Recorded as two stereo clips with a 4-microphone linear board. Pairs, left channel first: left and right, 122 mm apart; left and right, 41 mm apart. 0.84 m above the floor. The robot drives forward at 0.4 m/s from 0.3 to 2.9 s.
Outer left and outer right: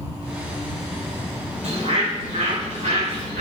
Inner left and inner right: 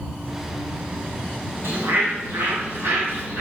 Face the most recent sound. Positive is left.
turn(degrees=-75)  # may be behind; listen again after turning